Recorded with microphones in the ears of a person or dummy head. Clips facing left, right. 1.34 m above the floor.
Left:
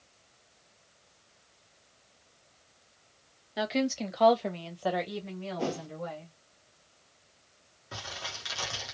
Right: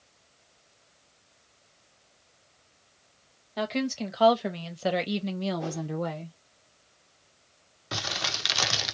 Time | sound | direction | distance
3.6 | a woman speaking | 5° left (ahead or behind) | 1.1 m
5.6 | a whoosh | 45° left (ahead or behind) | 0.8 m
7.9 | crumpling | 75° right (ahead or behind) | 0.6 m